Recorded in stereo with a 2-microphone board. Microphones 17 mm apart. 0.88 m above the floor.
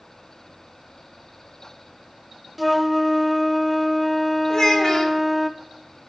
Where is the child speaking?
30° left (ahead or behind), 2.5 m.